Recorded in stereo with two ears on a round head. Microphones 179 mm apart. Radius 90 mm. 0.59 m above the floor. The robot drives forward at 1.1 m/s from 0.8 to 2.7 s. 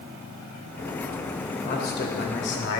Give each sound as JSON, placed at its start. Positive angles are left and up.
{"t": 1.6, "sound": "a man speaking", "side_deg": 45, "distance_m": 2.5}